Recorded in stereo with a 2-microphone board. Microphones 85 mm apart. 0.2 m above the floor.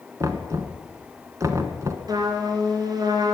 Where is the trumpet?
50° right (ahead or behind), 3 m.